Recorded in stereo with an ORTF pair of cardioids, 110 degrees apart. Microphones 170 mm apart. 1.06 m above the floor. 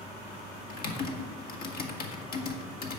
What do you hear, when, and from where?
0.7 s typing on a keyboard: 65° left, 1.9 m